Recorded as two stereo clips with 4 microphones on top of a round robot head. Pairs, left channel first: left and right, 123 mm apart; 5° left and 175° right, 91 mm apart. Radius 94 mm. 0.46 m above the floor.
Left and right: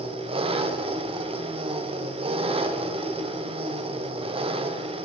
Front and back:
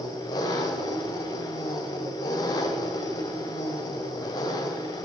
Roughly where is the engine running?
Ahead right.